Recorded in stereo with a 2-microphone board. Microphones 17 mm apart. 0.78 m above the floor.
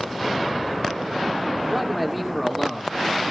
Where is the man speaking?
5° left (ahead or behind), 1.6 m.